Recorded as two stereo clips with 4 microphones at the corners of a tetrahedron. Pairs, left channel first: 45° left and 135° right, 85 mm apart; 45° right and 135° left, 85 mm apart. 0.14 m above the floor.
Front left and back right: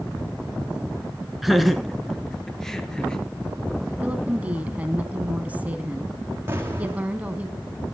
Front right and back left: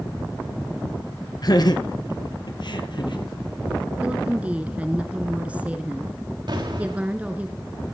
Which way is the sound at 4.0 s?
Straight behind.